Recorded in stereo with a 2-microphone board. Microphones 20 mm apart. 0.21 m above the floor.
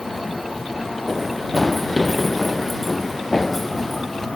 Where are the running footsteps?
5° left (ahead or behind); by 4.3 s 10° left (ahead or behind).